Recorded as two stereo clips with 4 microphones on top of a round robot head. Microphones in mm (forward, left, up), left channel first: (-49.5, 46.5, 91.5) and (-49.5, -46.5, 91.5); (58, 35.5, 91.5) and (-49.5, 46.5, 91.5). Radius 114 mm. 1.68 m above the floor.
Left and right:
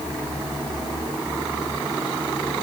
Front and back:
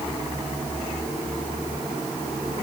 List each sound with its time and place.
Only background noise.